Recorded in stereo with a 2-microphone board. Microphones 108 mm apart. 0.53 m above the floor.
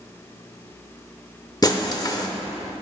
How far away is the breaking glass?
About 0.7 m.